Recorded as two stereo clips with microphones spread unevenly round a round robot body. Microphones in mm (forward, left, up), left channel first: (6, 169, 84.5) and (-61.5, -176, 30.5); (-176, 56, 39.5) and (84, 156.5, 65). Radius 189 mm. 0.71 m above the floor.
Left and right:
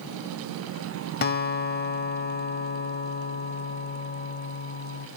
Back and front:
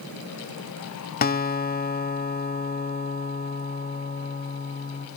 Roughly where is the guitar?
Behind left.